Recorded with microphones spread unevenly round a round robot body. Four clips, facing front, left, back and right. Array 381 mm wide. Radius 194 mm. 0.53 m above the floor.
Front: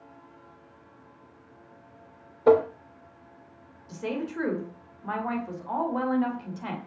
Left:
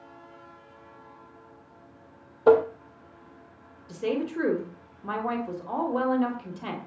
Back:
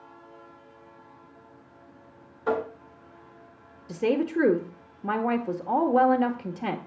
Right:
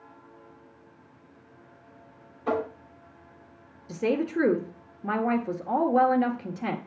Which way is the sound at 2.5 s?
45° left.